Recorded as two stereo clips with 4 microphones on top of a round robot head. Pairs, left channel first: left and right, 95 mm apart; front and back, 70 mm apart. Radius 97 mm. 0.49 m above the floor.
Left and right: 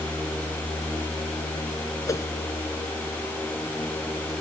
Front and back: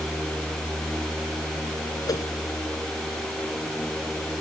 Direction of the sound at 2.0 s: 35° left.